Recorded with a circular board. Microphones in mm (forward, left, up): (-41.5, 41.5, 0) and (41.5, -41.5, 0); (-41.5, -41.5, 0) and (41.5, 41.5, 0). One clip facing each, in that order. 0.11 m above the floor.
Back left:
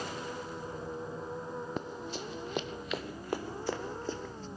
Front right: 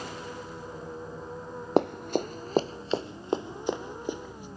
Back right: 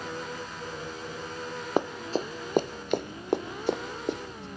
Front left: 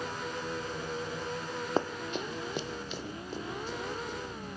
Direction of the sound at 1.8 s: 60° right.